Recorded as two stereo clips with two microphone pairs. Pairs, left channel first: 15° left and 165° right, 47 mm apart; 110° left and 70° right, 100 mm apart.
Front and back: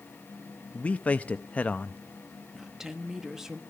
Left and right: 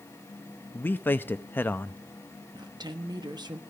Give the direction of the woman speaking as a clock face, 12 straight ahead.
3 o'clock.